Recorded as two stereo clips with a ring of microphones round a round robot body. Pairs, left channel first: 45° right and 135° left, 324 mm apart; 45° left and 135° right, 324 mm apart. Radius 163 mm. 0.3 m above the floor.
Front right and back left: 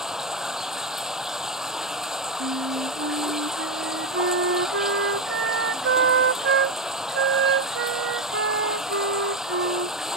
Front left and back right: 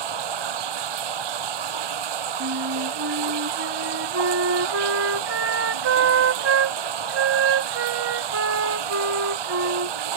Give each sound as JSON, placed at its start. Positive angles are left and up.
{"t": 0.0, "sound": "running water", "azimuth_deg": -135}
{"t": 2.4, "sound": "a flute", "azimuth_deg": -175}